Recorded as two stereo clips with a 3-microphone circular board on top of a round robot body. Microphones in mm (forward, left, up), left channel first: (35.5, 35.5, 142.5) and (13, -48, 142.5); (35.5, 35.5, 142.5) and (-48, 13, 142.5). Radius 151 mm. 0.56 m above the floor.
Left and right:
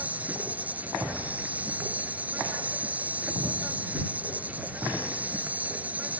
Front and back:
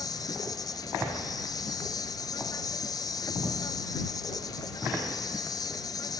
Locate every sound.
0.0 s an insect: 30° right